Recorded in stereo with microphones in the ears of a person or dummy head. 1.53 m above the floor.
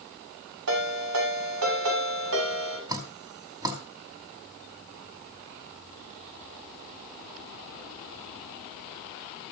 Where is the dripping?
20° right (ahead or behind), 3 m.